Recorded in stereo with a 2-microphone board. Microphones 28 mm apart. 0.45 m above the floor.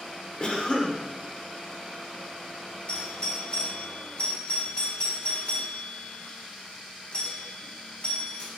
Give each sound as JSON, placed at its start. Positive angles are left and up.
{"t": 0.4, "sound": "a cough", "side_deg": 35, "distance_m": 1.2}
{"t": 2.9, "sound": "a doorbell", "side_deg": 40, "distance_m": 1.5}